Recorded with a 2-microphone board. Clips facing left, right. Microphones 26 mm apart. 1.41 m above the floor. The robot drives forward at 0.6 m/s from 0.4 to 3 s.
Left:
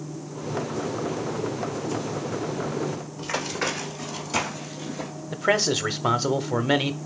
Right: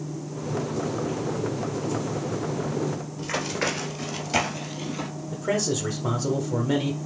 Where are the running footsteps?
Centre (ahead or behind), 1.6 m; by 5.1 s 45° right (ahead or behind), 1.8 m.